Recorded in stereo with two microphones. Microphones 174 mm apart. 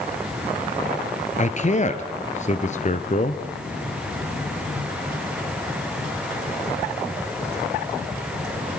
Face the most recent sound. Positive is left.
turn(degrees=40)  # may be behind; listen again after turning